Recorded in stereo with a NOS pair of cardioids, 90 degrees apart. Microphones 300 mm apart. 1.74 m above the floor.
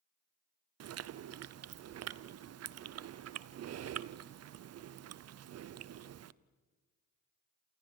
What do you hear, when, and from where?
0.8 s chewing: 55° right, 0.8 m